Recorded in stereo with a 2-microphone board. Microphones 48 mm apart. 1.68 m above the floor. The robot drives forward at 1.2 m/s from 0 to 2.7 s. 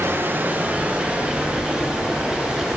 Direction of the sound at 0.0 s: 55° right (ahead or behind).